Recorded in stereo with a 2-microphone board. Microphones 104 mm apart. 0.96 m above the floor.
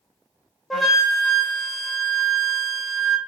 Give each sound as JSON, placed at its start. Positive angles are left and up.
{"t": 0.7, "sound": "a flute", "side_deg": 0, "distance_m": 0.6}